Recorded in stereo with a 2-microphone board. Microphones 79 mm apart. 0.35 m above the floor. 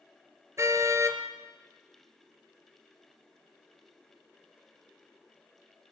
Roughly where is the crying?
No crying in this recording.